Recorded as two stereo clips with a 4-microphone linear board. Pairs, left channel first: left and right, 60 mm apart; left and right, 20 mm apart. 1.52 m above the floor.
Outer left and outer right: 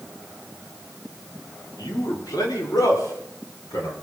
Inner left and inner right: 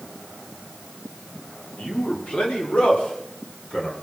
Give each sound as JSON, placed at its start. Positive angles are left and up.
{"t": 1.8, "sound": "a man speaking", "side_deg": 90, "distance_m": 4.5}